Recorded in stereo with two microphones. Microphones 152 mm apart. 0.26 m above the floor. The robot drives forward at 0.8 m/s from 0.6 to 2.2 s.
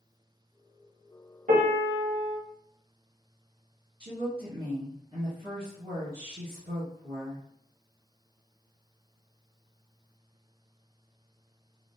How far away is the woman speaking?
About 1.5 m.